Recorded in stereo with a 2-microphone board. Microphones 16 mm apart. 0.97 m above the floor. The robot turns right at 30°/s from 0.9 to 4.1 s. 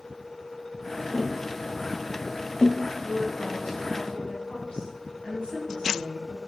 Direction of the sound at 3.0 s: 65° left.